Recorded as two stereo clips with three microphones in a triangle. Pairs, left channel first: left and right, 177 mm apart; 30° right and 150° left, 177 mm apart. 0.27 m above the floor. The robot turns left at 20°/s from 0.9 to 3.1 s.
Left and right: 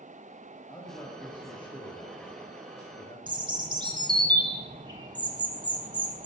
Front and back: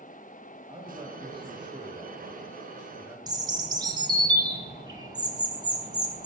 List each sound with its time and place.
0.7 s a man speaking: 130° left, 1.0 m; by 3.2 s 85° left, 1.0 m
3.3 s a bird: 145° right, 0.7 m